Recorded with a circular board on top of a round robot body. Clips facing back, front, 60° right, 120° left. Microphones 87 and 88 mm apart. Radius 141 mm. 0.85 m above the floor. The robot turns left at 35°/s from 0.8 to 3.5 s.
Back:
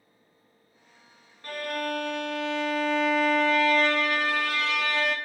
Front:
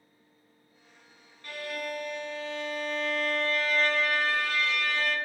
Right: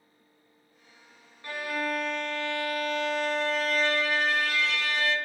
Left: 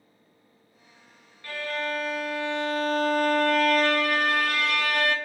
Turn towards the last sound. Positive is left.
turn(degrees=155)